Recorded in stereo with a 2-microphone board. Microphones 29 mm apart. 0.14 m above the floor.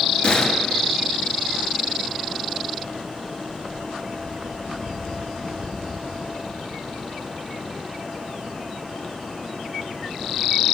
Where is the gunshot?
35° left (ahead or behind), 1.1 m.